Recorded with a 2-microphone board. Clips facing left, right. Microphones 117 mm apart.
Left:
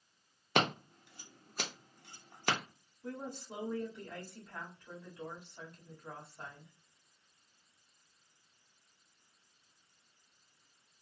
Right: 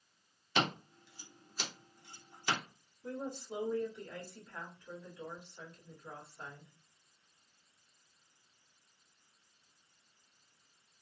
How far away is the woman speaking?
About 1.7 m.